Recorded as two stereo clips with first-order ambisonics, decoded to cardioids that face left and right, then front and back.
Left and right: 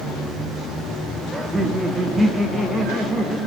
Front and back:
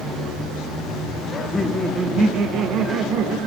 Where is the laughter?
30° right, 1.0 m; by 3.4 s straight behind, 1.5 m.